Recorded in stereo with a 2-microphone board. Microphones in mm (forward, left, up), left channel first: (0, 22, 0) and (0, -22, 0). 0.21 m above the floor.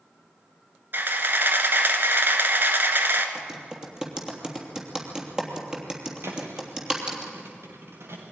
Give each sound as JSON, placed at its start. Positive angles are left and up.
{"t": 0.9, "sound": "a camera shutter", "side_deg": -50, "distance_m": 1.8}
{"t": 3.4, "sound": "typing on a keyboard", "side_deg": -15, "distance_m": 3.0}
{"t": 6.2, "sound": "a thud", "side_deg": -65, "distance_m": 4.0}